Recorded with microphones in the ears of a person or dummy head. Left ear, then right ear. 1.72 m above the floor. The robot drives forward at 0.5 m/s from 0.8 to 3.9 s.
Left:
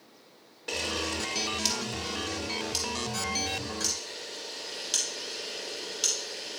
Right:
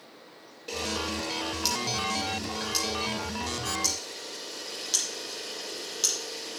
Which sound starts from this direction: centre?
A camera shutter, at 0.7 s.